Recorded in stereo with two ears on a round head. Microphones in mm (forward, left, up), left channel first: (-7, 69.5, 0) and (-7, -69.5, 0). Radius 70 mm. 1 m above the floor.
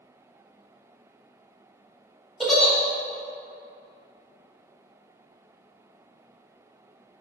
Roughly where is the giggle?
Centre.